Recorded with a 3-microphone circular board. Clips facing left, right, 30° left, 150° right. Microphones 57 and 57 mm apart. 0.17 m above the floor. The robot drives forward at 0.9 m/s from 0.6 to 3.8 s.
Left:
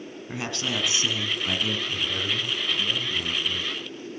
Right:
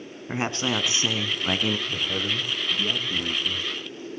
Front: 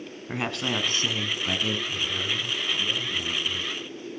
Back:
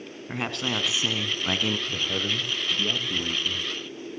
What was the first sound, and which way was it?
A man speaking, 55° right.